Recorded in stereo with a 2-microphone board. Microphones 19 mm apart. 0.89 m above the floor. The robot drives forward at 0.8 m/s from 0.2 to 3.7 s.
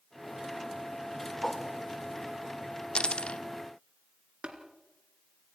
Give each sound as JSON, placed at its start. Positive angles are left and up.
{"t": 1.4, "sound": "a whoosh", "side_deg": 10, "distance_m": 3.0}
{"t": 3.0, "sound": "a dropped coin", "side_deg": 60, "distance_m": 0.9}
{"t": 4.4, "sound": "tapping", "side_deg": -75, "distance_m": 3.0}